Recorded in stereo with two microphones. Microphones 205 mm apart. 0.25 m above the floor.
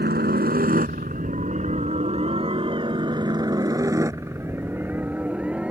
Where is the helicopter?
55° right (ahead or behind); by 5.7 s 5° right (ahead or behind).